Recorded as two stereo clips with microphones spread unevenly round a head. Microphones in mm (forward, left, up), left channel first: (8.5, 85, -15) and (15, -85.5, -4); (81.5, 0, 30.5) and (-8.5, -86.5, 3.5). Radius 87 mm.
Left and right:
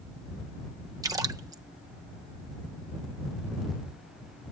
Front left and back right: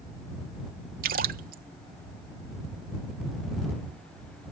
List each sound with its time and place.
1.0 s a splash: 160° right